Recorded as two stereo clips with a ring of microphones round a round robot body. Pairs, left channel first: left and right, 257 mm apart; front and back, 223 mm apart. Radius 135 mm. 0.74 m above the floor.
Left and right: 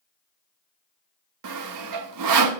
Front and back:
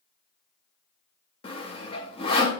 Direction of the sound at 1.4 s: 70° right.